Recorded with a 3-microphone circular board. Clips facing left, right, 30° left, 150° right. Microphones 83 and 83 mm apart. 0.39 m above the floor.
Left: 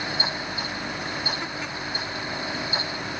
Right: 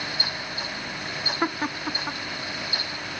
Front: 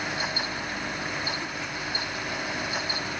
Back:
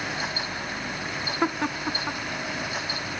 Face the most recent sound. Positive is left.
turn(degrees=-130)